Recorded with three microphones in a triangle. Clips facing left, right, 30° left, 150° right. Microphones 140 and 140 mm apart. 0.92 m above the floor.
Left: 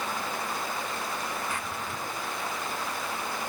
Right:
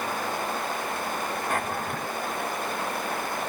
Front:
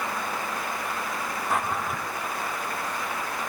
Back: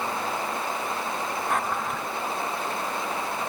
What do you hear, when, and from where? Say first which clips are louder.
1.5 s a drawer: right 6 dB, front 2 dB; 60° right